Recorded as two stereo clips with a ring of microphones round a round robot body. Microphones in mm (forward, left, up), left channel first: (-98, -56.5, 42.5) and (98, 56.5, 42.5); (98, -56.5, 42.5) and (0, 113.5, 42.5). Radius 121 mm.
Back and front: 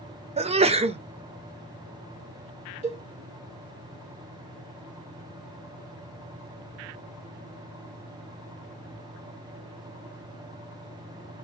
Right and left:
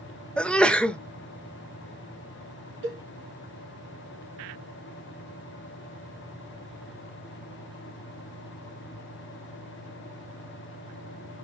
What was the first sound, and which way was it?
A sneeze, 20° left.